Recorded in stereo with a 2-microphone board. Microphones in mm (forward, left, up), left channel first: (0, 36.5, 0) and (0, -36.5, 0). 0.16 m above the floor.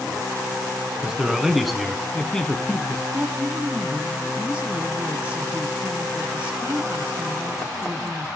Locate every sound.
1.0 s a man speaking: 10° right (ahead or behind), 1.6 m; by 3.0 s 15° left (ahead or behind), 1.8 m
3.1 s a woman speaking: 20° right (ahead or behind), 1.1 m